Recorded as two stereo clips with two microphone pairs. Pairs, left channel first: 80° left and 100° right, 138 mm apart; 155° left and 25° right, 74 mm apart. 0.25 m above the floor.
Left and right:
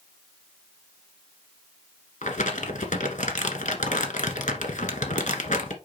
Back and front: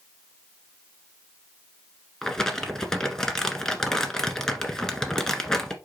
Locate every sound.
2.2 s crumpling: 75° left, 1.5 m